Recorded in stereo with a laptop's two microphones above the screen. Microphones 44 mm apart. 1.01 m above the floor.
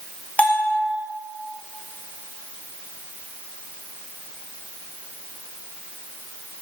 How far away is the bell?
About 0.9 m.